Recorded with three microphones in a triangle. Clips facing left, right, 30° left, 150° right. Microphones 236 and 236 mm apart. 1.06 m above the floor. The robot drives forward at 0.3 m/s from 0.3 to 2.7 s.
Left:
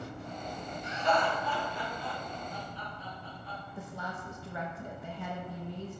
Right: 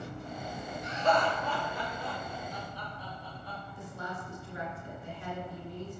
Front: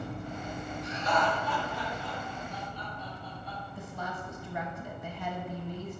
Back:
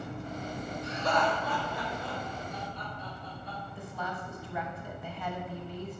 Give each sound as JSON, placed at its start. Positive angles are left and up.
{"t": 0.8, "sound": "laughter", "azimuth_deg": -130, "distance_m": 3.5}
{"t": 3.8, "sound": "a woman speaking", "azimuth_deg": 105, "distance_m": 0.9}